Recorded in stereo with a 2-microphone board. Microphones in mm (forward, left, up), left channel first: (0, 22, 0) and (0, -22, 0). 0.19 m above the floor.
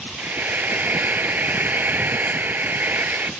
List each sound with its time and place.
0.2 s frying: 55° right (ahead or behind)